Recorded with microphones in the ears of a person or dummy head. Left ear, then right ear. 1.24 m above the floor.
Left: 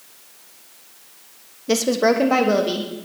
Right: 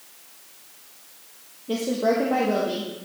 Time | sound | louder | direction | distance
1.7 | a woman speaking | left 5 dB | 60° left (ahead or behind) | 0.6 m